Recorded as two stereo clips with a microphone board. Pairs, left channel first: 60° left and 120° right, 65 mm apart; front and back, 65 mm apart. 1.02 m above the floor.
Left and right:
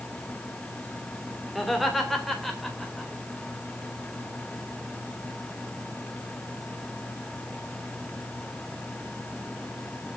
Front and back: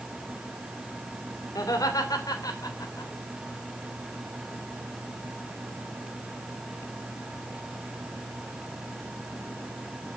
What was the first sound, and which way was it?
Laughter, 30° right.